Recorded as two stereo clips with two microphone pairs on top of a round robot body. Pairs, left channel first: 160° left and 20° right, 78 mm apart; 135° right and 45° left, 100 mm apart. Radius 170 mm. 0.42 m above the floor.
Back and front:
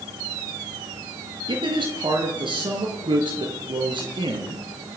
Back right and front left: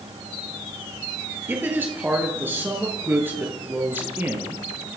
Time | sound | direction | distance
1.5 | a man speaking | 25° right | 8.5 m